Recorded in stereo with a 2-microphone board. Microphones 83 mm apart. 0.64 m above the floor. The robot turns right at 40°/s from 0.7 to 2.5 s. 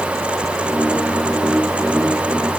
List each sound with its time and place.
Only background noise.